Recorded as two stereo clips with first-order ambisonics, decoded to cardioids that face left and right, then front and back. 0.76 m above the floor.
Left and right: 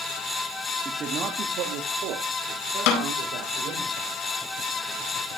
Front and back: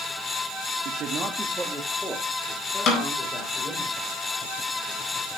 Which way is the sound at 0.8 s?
155° right.